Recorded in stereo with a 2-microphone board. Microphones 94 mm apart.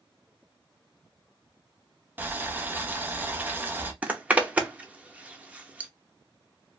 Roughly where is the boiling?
Centre.